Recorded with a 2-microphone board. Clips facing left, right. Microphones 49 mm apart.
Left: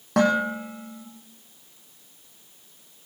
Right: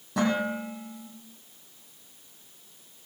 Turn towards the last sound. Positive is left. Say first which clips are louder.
# left 5 dB
turn(degrees=65)  # may be behind; listen again after turning